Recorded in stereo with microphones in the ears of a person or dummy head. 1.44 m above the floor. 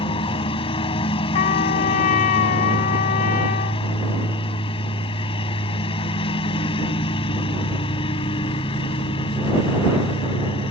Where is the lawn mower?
25° left (ahead or behind).